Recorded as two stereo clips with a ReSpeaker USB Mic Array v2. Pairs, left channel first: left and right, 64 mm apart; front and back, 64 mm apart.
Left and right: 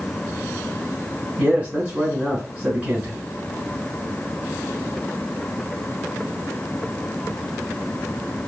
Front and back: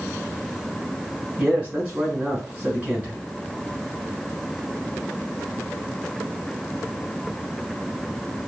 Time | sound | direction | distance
1.4 | a man speaking | 135° right | 1.3 m